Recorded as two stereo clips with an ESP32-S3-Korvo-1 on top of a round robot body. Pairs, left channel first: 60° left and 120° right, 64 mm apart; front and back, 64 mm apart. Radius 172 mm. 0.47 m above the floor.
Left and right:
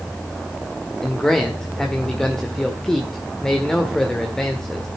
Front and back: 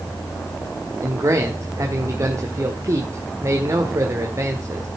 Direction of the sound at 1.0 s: 140° left.